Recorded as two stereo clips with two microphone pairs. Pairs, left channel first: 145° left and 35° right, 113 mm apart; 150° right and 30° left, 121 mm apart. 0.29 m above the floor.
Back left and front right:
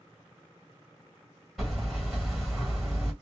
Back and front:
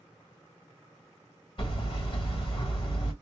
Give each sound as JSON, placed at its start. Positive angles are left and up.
{"t": 1.6, "sound": "hammering", "azimuth_deg": -130, "distance_m": 1.7}